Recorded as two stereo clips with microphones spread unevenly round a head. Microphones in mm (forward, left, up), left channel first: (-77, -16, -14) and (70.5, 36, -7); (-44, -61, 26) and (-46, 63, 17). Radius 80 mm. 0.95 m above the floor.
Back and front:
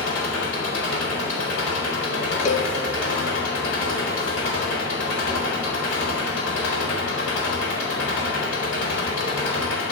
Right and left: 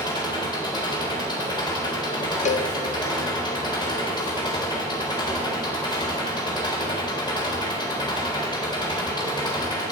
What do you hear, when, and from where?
0.0 s an engine running: 145° right, 4 m
2.5 s a cowbell: 115° right, 0.6 m